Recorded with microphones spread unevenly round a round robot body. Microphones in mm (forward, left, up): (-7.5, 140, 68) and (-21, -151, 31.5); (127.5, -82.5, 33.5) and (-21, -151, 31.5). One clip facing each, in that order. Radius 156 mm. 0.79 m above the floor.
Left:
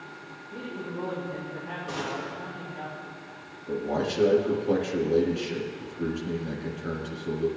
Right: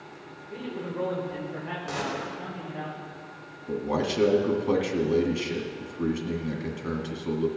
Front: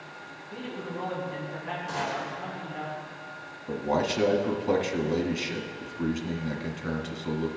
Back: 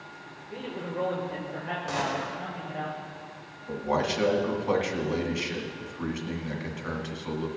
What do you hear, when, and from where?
0.5 s a man speaking: 115° right, 3 m; by 2.9 s 95° right, 3.5 m
1.9 s a gunshot: 145° right, 2.5 m
3.7 s a man speaking: 30° right, 1.9 m